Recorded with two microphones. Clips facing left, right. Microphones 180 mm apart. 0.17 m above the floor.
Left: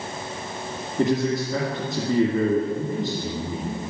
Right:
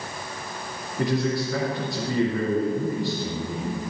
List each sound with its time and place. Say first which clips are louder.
1.0 s a man speaking: left 2 dB; 20° left (ahead or behind), 2.5 m